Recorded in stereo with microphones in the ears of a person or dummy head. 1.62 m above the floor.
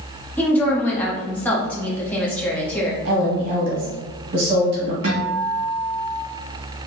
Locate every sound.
0.4 s a woman speaking: 5° left (ahead or behind), 0.9 m
3.0 s a woman speaking: 65° right (ahead or behind), 1.0 m
5.0 s a guitar: 50° right (ahead or behind), 2.0 m